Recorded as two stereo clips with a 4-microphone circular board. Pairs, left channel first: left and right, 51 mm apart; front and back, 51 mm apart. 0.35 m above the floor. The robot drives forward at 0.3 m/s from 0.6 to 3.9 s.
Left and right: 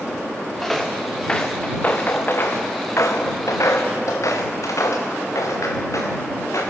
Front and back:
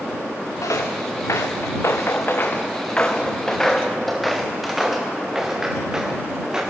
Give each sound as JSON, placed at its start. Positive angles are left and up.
{"t": 0.6, "sound": "footsteps", "azimuth_deg": 5, "distance_m": 3.0}